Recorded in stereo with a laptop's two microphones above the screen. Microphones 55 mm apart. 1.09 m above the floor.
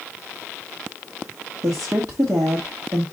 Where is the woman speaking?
80° right, 1.3 m.